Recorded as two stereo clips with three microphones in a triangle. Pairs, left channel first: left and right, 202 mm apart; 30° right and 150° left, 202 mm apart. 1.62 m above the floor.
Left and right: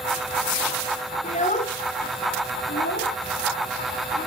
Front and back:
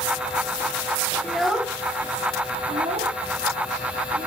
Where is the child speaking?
50° left, 1.0 m; by 4.3 s 115° left, 2 m.